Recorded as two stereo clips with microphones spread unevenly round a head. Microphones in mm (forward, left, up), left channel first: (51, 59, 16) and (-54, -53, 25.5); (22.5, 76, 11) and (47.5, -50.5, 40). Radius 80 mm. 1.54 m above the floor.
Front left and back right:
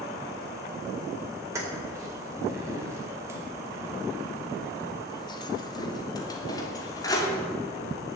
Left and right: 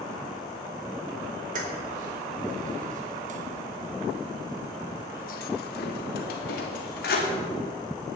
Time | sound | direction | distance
1.6 | keys jangling | 60° right | 4.5 m